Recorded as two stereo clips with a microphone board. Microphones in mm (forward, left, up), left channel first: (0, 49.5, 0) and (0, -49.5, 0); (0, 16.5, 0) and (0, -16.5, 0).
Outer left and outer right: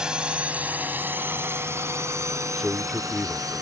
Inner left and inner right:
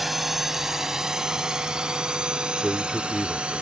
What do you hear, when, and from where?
0.0 s a drone: 5° right (ahead or behind); by 3.6 s 35° right (ahead or behind)
2.6 s a man speaking: centre (ahead or behind)